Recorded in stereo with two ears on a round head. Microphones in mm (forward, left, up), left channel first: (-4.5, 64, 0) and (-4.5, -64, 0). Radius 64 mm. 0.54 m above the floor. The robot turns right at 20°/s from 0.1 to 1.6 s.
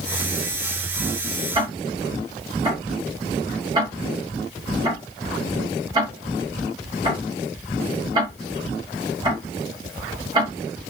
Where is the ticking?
25° right (ahead or behind), 1.2 m; by 10.5 s 30° right (ahead or behind), 1.2 m.